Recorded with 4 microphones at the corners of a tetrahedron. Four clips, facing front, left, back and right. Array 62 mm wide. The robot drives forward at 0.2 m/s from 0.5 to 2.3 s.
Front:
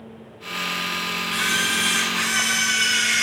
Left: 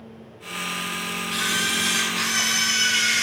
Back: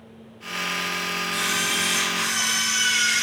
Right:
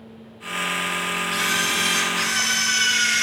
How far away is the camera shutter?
About 0.6 m.